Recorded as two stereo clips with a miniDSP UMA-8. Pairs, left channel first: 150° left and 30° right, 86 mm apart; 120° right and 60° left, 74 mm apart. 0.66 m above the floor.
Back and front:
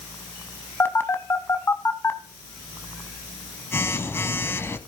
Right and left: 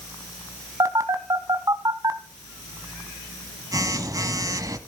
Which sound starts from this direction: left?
A phone buzzing, at 0.8 s.